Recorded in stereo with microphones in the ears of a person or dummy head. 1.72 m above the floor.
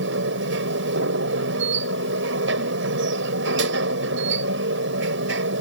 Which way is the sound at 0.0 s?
75° right (ahead or behind).